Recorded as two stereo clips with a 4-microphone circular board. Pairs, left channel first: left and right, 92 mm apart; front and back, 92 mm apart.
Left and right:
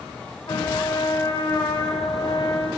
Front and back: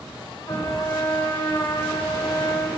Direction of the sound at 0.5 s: 45° left.